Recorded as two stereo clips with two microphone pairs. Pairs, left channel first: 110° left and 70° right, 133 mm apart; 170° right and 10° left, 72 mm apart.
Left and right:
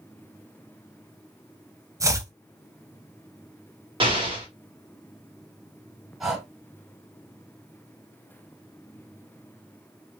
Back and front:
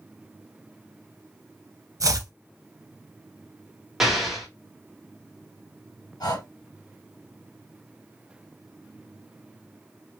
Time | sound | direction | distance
2.0 | chopping | 10° right | 0.5 m
4.0 | an explosion | 70° right | 1.3 m
6.2 | breathing | 155° right | 1.4 m